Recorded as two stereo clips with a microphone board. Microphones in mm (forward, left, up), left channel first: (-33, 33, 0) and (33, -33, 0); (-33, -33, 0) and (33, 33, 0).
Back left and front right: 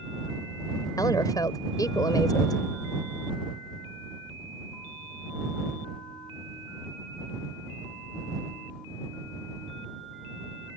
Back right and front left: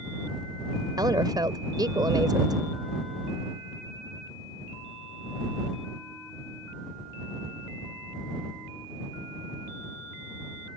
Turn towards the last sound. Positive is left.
turn(degrees=90)